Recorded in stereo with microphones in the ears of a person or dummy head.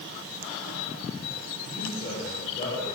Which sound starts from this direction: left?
A man speaking, at 1.6 s.